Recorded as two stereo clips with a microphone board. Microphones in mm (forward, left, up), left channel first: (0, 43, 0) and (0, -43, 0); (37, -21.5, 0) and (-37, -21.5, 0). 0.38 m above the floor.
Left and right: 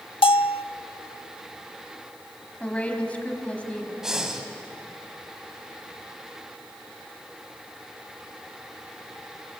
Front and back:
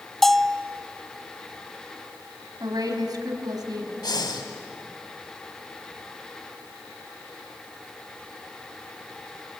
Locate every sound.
0.2 s a bell: 85° left, 0.5 m
2.6 s a woman speaking: 165° left, 3 m
4.0 s breathing: 5° right, 2 m